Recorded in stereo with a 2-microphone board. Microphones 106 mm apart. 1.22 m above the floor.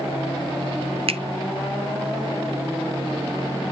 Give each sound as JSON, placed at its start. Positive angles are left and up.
{"t": 1.1, "sound": "a finger snap", "side_deg": -65, "distance_m": 0.6}